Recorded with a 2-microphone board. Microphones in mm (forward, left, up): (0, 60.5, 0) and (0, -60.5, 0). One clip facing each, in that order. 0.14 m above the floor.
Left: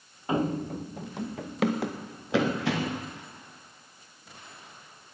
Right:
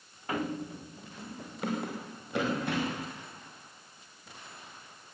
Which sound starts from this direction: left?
Running footsteps, at 0.3 s.